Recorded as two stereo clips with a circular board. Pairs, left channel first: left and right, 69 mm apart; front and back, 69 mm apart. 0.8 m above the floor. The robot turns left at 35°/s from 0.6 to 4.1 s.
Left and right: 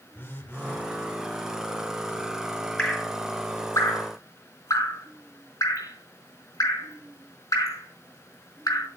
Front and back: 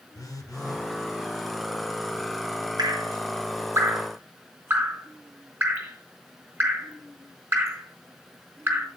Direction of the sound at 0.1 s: 35° left.